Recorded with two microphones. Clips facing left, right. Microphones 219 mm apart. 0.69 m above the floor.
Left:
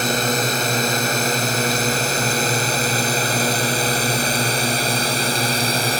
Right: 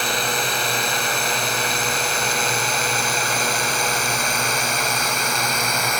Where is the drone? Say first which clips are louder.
Left 5 dB; 45° left (ahead or behind); by 6.0 s 35° left (ahead or behind).